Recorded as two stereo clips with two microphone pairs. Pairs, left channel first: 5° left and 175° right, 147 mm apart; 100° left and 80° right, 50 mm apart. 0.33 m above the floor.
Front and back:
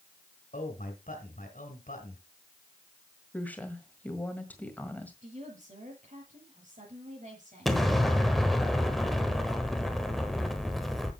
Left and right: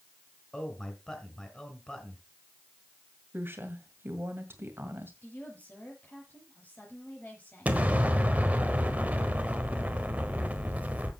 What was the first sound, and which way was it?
A man speaking, 25° left.